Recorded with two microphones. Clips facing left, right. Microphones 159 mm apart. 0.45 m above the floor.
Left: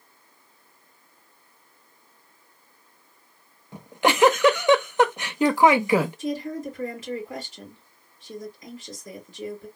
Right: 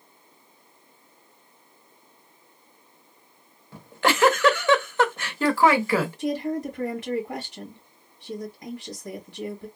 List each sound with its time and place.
3.7 s a giggle: 15° left (ahead or behind), 0.5 m
6.2 s a woman speaking: 65° right (ahead or behind), 2 m